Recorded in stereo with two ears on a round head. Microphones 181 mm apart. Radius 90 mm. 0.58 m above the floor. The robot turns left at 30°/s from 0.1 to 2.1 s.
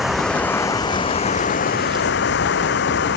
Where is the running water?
Straight behind; by 3.2 s 120° left.